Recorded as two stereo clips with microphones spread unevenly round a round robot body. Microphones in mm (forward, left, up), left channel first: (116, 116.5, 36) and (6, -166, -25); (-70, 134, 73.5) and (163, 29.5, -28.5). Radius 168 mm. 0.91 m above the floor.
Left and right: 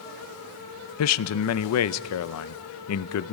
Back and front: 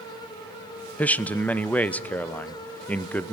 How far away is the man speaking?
About 0.6 m.